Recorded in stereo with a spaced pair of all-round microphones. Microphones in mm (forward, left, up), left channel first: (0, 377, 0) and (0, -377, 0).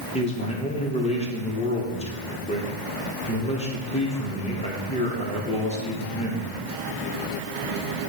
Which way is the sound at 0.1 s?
10° left (ahead or behind).